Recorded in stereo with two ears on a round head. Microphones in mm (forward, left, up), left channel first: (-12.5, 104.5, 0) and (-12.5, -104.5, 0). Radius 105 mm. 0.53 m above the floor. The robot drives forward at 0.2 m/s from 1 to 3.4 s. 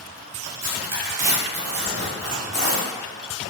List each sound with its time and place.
0.4 s tearing paper: 35° right (ahead or behind), 1.5 m; by 2.9 s 50° right (ahead or behind), 1.3 m